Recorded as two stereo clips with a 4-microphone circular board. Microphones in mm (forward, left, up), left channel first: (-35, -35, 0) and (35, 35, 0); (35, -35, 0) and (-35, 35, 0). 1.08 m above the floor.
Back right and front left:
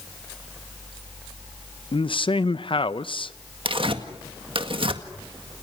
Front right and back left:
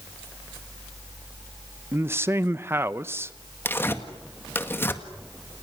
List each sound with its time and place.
1.9 s a man speaking: 160° right, 0.7 m
3.6 s tearing paper: 20° left, 1.8 m